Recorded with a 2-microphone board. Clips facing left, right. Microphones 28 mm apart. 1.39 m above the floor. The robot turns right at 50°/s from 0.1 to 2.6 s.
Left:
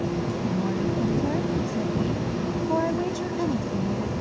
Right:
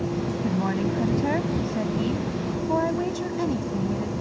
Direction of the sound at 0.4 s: 115° right.